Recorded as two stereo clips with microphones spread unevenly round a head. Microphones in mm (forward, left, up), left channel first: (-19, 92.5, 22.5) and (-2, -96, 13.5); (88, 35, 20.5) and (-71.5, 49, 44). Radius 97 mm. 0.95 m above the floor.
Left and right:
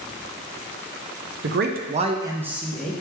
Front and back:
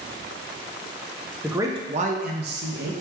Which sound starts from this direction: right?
A man speaking, at 1.4 s.